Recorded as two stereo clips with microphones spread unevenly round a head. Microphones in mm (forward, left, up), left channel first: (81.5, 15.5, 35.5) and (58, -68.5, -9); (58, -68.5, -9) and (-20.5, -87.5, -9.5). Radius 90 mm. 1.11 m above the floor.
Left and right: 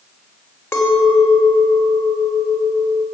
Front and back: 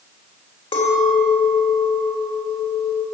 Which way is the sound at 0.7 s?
15° left.